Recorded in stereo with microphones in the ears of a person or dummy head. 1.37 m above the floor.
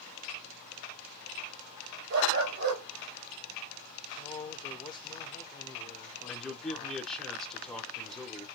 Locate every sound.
2.1 s a dog barking: 60° right (ahead or behind), 1.8 m
4.2 s a man speaking: 25° left (ahead or behind), 1.1 m
6.3 s a man speaking: 5° left (ahead or behind), 1.1 m